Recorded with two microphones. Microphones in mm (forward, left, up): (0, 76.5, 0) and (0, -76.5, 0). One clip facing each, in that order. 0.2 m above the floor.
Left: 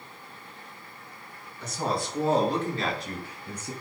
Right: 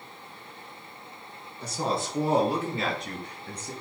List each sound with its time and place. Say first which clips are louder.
1.6 s a woman speaking: even; 30° right (ahead or behind), 3 m; by 3.7 s 10° left (ahead or behind), 4.5 m